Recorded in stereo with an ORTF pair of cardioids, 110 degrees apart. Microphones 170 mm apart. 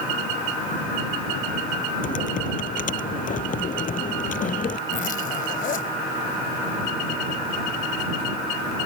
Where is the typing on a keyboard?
50° left.